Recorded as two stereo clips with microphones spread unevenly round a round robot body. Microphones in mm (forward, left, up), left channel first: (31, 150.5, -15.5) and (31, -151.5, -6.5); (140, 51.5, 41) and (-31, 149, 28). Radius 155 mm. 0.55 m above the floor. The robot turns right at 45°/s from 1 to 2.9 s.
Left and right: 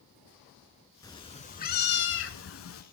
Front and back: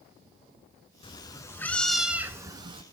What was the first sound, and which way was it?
A cat meowing, 15° left.